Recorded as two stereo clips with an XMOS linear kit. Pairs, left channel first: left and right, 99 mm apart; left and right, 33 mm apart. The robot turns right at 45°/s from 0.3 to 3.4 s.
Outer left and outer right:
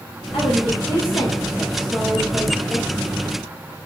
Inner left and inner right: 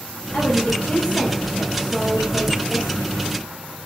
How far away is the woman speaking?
About 1.4 m.